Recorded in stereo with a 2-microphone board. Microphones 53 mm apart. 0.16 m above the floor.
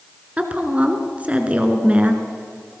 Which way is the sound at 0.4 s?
25° right (ahead or behind).